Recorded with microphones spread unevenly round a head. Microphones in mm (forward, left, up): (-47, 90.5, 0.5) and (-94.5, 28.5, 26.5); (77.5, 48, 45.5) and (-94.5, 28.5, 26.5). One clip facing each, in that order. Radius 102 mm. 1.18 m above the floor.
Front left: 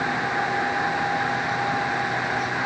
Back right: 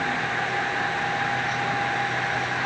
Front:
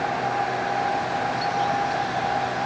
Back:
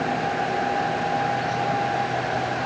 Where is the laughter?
I don't hear laughter.